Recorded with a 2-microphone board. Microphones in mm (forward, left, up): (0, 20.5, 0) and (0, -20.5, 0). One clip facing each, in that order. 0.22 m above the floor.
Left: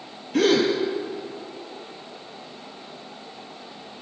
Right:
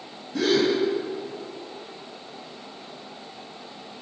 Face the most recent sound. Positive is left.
turn(degrees=80)